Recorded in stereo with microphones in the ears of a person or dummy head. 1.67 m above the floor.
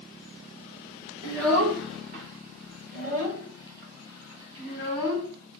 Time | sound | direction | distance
1.2 | a child speaking | 65° right (ahead or behind) | 2.5 m